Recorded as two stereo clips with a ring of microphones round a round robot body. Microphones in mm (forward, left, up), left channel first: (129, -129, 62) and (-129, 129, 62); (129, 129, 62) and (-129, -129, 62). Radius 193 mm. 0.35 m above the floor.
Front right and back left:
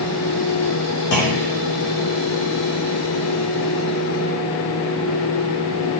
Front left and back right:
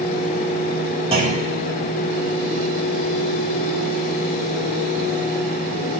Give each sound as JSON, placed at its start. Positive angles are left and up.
{"t": 1.1, "sound": "a clunk", "azimuth_deg": -65, "distance_m": 2.0}